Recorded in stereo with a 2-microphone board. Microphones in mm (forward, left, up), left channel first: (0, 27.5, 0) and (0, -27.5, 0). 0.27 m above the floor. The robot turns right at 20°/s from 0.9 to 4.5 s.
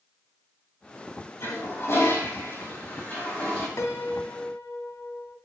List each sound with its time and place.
1.4 s a toilet flushing: 115° left, 7.5 m; by 3.7 s 160° left, 7.5 m
3.8 s a piano: 55° left (ahead or behind), 1.7 m